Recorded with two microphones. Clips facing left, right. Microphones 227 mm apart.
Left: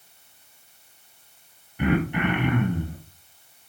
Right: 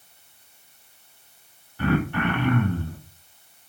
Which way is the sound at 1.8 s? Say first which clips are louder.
Even; 15° left (ahead or behind).